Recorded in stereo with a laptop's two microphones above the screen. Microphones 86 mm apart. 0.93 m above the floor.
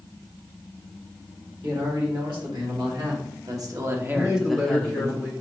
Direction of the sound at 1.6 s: 70° right (ahead or behind).